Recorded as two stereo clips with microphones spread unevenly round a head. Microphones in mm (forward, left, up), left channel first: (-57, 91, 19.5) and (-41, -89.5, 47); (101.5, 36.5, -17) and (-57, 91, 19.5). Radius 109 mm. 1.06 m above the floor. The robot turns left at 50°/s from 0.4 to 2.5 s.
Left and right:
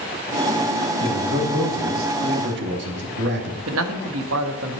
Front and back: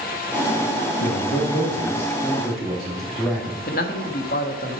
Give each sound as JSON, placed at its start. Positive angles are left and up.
{"t": 1.0, "sound": "a man speaking", "azimuth_deg": -30, "distance_m": 2.5}
{"t": 3.7, "sound": "a man speaking", "azimuth_deg": -70, "distance_m": 1.3}